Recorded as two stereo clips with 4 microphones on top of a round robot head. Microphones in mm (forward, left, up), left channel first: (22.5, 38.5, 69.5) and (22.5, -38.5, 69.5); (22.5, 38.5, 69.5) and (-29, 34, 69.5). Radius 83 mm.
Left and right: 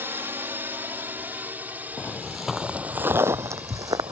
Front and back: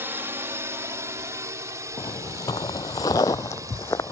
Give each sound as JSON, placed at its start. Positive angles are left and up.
{"t": 0.0, "sound": "a drone", "azimuth_deg": -145}
{"t": 2.0, "sound": "footsteps", "azimuth_deg": 20}